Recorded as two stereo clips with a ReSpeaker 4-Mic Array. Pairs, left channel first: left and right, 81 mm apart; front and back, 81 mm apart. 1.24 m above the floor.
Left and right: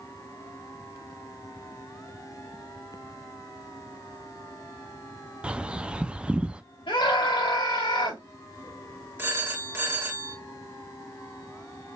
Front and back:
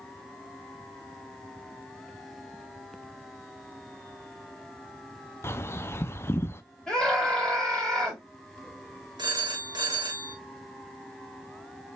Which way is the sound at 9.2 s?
155° right.